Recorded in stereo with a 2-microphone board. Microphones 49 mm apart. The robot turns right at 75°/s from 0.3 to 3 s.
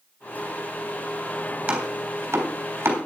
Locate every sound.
1.7 s chopping: 30° right (ahead or behind), 3.5 m; by 3.0 s 50° right (ahead or behind), 3.5 m